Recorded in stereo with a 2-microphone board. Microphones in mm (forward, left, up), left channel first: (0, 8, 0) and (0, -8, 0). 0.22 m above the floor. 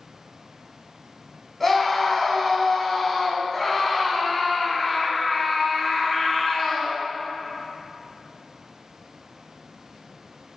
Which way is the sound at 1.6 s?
15° left (ahead or behind).